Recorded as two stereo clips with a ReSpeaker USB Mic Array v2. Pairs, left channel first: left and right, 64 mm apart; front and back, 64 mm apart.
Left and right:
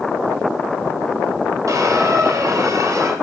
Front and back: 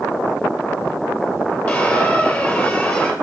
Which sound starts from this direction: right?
A squeak, at 1.7 s.